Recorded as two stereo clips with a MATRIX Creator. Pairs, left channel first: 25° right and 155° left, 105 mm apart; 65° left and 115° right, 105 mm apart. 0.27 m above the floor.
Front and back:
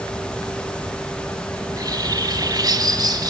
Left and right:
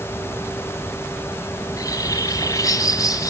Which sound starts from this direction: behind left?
A bird, at 1.6 s.